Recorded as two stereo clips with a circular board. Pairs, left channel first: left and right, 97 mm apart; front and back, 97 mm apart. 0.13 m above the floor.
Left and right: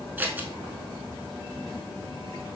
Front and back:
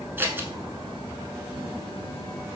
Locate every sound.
0.2 s scissors: 140° right, 0.7 m